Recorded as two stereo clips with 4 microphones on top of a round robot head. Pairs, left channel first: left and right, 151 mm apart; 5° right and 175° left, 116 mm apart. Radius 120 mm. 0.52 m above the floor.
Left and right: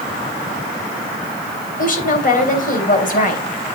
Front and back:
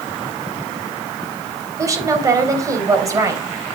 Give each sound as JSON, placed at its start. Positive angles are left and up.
{"t": 1.8, "sound": "a woman speaking", "azimuth_deg": 115, "distance_m": 3.0}